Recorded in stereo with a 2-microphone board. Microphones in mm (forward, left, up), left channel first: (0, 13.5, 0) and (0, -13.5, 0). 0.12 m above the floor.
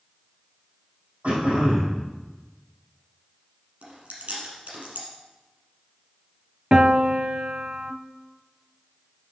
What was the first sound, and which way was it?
Throat clearing, 40° right (ahead or behind).